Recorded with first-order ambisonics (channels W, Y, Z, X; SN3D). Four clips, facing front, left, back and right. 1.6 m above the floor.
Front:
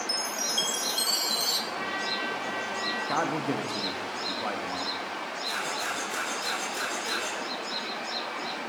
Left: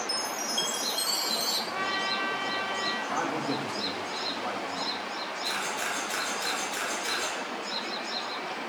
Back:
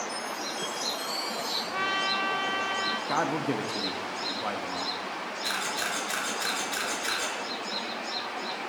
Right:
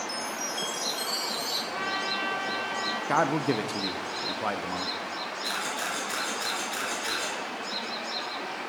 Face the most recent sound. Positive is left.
turn(degrees=-150)